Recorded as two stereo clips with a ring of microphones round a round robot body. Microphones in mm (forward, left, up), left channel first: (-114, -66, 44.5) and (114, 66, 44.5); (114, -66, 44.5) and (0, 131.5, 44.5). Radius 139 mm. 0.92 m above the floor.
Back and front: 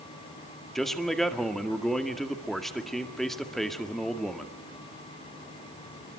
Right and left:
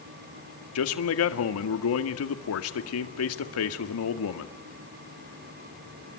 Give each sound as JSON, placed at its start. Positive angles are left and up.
{"t": 0.8, "sound": "a man speaking", "azimuth_deg": -60, "distance_m": 2.0}